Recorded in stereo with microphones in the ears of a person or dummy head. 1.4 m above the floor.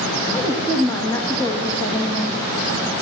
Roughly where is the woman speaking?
Centre.